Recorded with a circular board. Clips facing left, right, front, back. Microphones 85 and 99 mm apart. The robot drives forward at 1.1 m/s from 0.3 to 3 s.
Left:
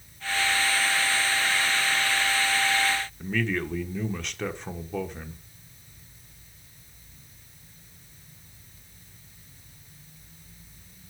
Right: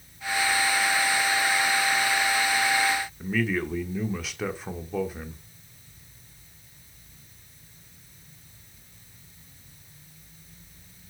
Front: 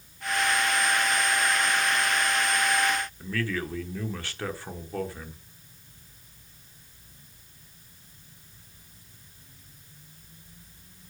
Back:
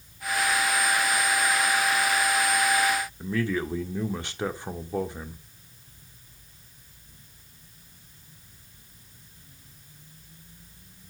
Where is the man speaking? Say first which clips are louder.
Right 1 dB, back 3 dB; 165° right, 1.2 m.